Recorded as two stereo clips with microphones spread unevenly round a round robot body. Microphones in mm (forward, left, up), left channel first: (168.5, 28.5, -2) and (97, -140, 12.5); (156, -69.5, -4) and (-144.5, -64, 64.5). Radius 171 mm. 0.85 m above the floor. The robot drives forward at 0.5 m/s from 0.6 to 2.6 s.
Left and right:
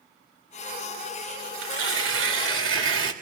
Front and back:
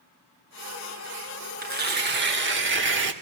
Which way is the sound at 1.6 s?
120° right.